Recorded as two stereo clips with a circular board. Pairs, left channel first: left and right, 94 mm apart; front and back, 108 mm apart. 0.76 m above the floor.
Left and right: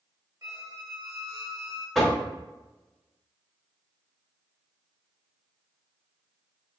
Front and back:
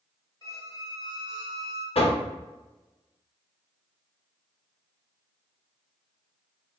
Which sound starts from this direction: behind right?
A squeak, at 0.4 s.